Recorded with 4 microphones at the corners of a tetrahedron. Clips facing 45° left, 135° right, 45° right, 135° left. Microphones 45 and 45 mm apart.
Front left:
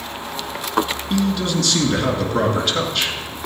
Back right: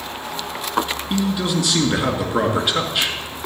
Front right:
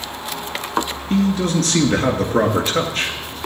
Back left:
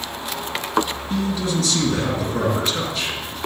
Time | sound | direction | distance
1.1 | a man speaking | 65° right | 2.5 m